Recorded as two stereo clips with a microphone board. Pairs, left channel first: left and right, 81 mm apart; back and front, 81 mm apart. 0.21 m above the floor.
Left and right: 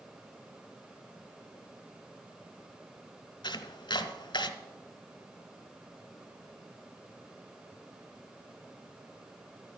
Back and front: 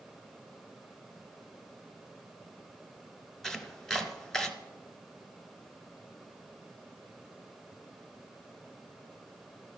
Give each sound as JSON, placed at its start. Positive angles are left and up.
{"t": 3.4, "sound": "chopping", "azimuth_deg": 95, "distance_m": 0.7}